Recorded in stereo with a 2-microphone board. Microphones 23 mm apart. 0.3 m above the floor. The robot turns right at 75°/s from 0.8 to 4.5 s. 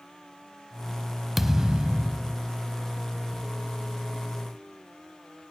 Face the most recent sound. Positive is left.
turn(degrees=60)